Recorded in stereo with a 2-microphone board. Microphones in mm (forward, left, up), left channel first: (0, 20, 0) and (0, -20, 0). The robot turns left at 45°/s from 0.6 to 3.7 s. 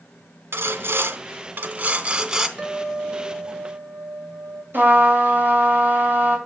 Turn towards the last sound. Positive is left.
turn(degrees=-60)  # may be behind; listen again after turning